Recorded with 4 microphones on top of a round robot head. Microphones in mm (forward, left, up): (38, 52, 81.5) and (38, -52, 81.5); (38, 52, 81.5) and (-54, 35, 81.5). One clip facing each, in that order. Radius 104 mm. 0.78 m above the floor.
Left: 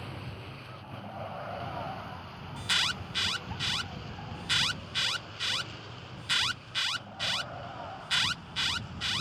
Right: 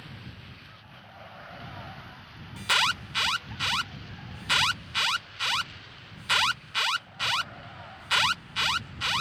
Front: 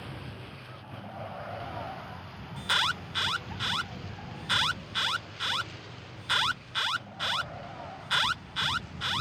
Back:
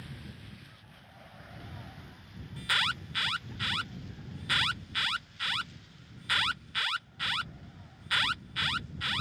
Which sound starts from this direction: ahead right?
An alarm, at 2.6 s.